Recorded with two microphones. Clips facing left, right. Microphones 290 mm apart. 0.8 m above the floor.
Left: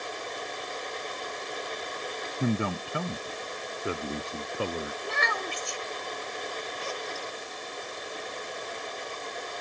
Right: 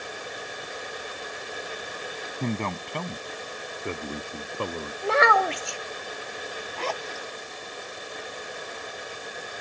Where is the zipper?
90° right.